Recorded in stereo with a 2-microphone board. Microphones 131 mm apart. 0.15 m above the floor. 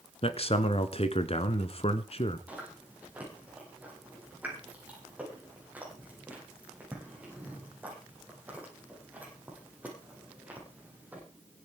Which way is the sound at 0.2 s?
45° left (ahead or behind).